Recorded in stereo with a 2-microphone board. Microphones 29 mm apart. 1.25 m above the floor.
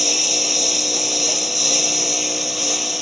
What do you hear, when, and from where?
0.0 s a lawn mower: centre (ahead or behind)